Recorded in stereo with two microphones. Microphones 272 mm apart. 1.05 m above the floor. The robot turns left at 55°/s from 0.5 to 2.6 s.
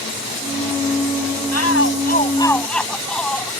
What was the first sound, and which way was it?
A shout, 65° left.